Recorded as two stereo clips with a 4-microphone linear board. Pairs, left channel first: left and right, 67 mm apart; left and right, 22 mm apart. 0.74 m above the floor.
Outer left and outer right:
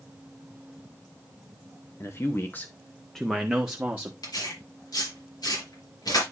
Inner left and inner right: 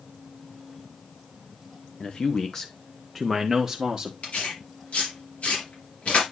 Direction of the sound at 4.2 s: 85° left.